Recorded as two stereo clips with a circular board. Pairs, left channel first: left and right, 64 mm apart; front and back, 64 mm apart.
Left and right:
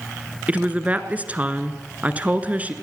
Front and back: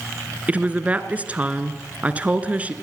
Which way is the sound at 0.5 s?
135° right.